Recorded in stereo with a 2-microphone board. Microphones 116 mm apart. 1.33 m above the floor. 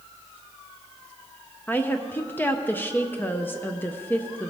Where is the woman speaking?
15° left (ahead or behind), 0.5 m.